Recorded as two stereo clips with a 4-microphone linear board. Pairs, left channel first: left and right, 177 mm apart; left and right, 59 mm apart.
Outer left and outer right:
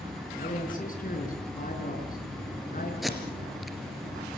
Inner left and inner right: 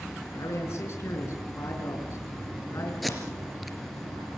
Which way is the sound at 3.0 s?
Centre (ahead or behind).